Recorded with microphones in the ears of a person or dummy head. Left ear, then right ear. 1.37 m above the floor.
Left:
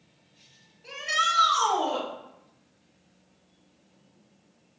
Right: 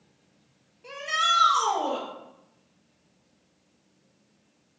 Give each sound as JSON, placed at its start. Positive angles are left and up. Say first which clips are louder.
{"t": 0.8, "sound": "a shout", "louder": "right 1 dB", "side_deg": -40, "distance_m": 2.5}